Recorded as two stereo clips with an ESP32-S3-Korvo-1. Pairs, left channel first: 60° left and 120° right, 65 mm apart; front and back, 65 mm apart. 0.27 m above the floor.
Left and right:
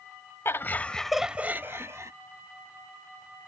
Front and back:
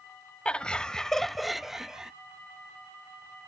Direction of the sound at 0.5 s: 65° left.